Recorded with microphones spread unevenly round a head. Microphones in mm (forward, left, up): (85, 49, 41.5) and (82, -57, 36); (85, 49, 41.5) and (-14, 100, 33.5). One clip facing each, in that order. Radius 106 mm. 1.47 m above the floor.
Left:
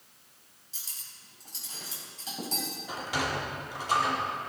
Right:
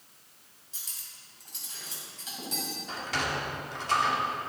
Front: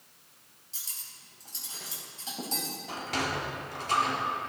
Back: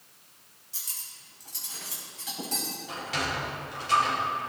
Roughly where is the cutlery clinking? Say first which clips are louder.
Even, back 2 dB; ahead left.